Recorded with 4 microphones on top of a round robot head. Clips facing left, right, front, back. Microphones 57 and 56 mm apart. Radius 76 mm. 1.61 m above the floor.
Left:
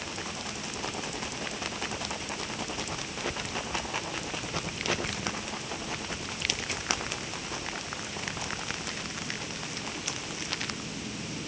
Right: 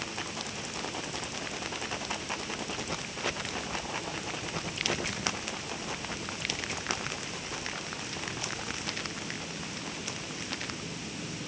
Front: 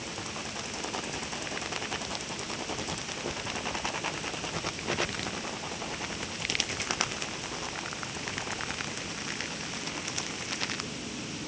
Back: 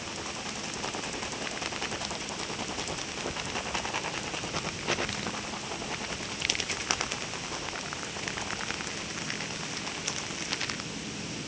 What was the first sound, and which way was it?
Only background noise.